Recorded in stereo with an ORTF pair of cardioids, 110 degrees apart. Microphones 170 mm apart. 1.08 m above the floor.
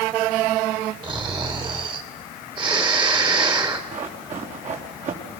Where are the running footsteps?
45° right, 5.5 m.